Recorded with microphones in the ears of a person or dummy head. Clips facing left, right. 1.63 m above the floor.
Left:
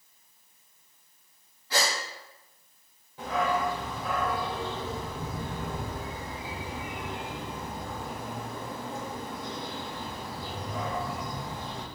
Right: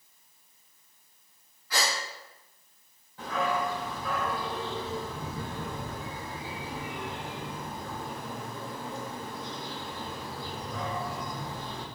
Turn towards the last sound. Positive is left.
turn(degrees=25)  # may be behind; listen again after turning